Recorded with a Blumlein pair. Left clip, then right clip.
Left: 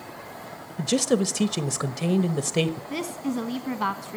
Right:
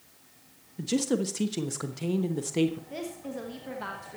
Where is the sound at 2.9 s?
65° left, 1.2 m.